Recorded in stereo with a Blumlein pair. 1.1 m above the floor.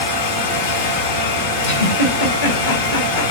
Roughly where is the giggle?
Ahead left.